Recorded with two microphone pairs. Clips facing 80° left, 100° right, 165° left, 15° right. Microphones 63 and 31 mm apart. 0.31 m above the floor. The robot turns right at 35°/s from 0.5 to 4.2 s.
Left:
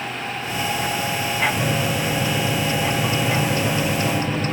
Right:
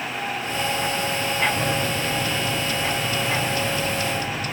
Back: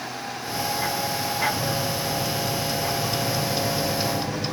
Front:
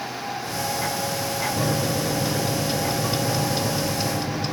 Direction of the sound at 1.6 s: Straight ahead.